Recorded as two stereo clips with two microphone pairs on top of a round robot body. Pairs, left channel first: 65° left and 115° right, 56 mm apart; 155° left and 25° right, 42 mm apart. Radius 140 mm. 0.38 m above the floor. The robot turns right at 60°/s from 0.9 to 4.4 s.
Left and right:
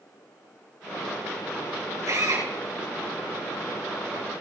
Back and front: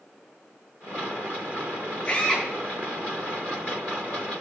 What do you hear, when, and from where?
2.1 s a drill: 150° right, 6.5 m; by 2.5 s 125° right, 6.5 m